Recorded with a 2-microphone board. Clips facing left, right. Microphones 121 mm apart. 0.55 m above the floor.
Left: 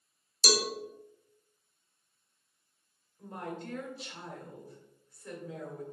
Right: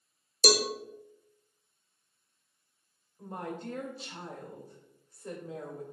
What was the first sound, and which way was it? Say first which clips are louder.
A cowbell: right 4 dB; 55° right (ahead or behind).